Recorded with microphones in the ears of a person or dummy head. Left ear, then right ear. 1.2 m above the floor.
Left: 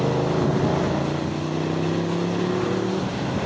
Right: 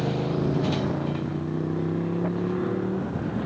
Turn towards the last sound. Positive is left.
turn(degrees=15)  # may be behind; listen again after turning